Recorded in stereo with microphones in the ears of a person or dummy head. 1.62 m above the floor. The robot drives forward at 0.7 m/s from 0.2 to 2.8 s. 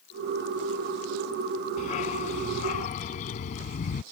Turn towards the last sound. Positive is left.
turn(degrees=40)  # may be behind; listen again after turning